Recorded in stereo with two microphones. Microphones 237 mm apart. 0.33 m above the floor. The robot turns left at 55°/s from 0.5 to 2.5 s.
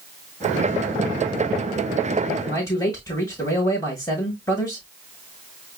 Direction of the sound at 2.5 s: 10° left (ahead or behind).